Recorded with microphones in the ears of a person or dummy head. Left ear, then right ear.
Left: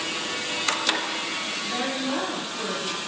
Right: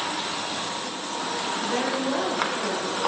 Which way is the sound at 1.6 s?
15° right (ahead or behind).